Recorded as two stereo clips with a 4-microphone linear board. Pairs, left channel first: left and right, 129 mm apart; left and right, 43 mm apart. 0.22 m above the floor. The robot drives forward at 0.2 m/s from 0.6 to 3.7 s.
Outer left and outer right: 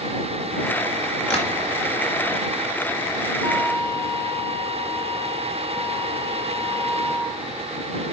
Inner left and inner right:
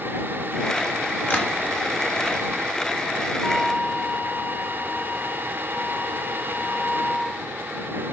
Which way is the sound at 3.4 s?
35° right (ahead or behind).